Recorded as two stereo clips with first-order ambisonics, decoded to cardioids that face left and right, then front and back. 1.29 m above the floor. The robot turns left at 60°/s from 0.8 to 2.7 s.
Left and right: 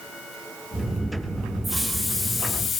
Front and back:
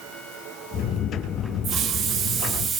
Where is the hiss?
170° right, 0.7 m; by 2.8 s 130° left, 0.7 m.